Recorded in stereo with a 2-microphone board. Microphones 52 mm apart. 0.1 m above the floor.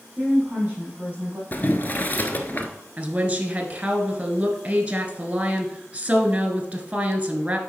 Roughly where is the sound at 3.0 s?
Right.